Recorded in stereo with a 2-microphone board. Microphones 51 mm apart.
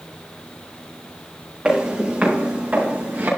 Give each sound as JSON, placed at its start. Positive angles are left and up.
{"t": 1.6, "sound": "footsteps", "side_deg": -25, "distance_m": 4.0}